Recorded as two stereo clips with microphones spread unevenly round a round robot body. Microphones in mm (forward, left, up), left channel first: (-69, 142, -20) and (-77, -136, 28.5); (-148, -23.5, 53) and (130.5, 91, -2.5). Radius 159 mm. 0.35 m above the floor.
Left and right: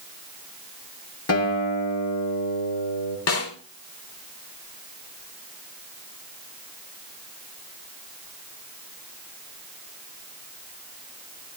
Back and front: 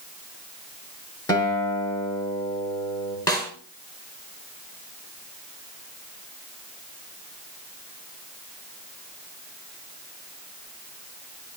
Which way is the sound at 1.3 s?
125° left.